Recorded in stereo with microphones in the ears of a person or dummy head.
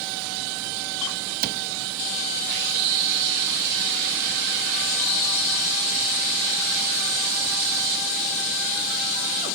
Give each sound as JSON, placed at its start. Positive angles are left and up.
{"t": 1.4, "sound": "a cupboard door", "side_deg": -50}